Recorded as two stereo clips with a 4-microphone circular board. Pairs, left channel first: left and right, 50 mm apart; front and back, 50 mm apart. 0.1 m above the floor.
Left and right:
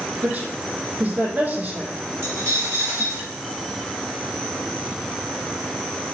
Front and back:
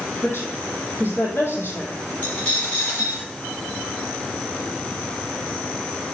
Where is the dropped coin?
60° right, 6.5 m.